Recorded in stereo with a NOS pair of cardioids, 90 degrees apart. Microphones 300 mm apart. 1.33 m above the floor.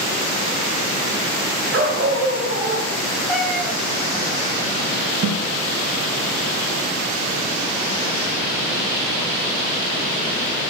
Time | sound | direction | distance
1.7 | a dog barking | 40° right | 3.5 m
3.3 | a cat meowing | straight ahead | 4.5 m
5.2 | a snare drum | 50° right | 3.5 m